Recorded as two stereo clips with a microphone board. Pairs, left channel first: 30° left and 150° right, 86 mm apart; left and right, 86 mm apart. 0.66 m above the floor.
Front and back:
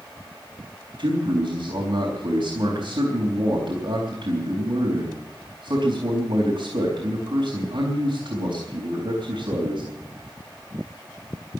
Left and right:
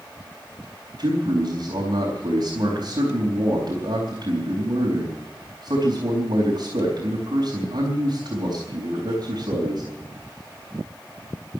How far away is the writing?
No writing in this recording.